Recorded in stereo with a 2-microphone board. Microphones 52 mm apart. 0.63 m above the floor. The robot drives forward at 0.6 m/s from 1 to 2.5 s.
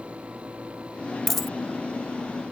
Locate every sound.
1.3 s a dropped coin: 5° left (ahead or behind)